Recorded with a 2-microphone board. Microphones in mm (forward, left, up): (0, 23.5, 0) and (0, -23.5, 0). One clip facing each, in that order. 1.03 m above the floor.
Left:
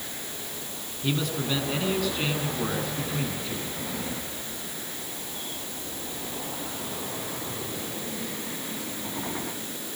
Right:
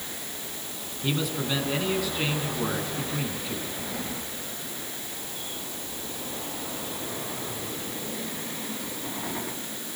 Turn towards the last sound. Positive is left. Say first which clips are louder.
# even
turn(degrees=-5)  # may be behind; listen again after turning